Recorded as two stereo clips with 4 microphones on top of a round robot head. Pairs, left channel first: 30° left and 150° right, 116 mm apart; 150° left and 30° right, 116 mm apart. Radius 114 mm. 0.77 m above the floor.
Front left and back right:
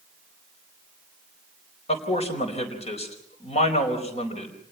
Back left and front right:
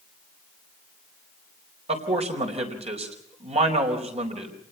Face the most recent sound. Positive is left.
turn(degrees=0)